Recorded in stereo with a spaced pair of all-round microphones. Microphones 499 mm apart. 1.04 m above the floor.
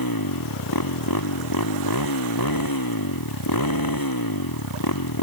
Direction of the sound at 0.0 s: 45° left (ahead or behind).